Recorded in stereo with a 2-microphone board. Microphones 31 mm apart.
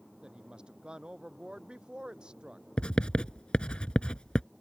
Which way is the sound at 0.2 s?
30° right (ahead or behind).